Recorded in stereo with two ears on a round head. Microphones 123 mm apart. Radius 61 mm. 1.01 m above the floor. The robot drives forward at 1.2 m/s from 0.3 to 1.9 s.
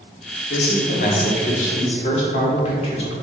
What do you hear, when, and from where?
0.5 s a man speaking: 85° left, 1.9 m; by 3.1 s 50° left (ahead or behind), 2.5 m